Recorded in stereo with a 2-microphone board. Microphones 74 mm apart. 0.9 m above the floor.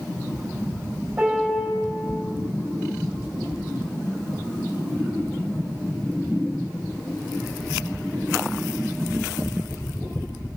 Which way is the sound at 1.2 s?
15° right (ahead or behind).